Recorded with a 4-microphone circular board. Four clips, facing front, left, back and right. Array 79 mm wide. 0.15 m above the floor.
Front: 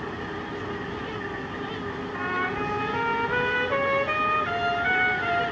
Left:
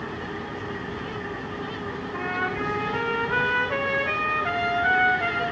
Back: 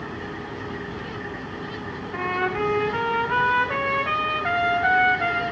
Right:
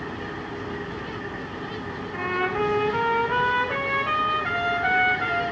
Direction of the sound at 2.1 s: 170° right.